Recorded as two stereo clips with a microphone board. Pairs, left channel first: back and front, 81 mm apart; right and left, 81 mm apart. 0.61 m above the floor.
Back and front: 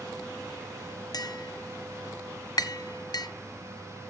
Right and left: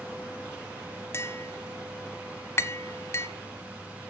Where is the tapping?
150° right, 1.4 m.